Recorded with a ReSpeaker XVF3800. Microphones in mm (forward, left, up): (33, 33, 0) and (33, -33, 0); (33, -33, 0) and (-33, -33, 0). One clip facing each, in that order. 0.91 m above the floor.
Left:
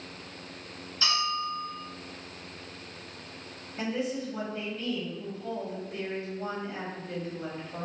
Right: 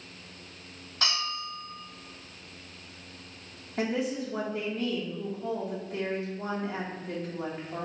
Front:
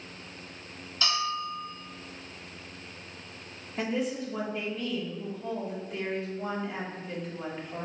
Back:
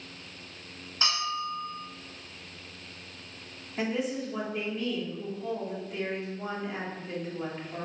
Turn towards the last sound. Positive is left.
turn(degrees=-90)